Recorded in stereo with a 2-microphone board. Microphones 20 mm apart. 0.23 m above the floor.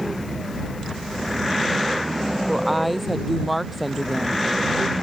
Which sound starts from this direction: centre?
A woman speaking, at 2.5 s.